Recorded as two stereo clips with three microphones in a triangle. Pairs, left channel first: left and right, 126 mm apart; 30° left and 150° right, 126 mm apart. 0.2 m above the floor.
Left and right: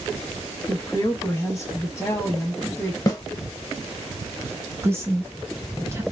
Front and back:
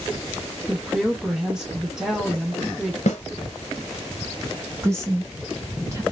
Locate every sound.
0.7 s a woman speaking: 130° left, 1.1 m
3.1 s a snare drum: 30° left, 0.9 m
4.8 s a woman speaking: 125° right, 1.0 m